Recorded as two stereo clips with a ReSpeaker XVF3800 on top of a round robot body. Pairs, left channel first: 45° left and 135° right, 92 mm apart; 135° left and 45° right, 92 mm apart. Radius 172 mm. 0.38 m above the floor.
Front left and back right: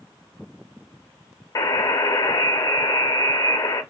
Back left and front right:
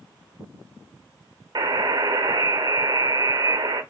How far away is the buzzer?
About 0.5 m.